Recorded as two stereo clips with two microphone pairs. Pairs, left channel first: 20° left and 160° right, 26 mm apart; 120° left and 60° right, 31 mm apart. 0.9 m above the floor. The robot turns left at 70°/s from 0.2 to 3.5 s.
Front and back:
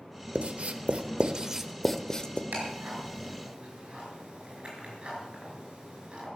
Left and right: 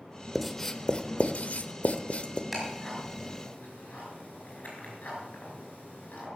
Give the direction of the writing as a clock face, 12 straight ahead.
5 o'clock.